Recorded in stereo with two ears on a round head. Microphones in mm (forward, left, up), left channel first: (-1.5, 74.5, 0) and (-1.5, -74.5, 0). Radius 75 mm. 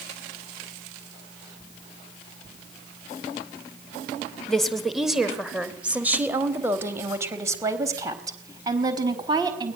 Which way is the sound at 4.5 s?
5° left (ahead or behind).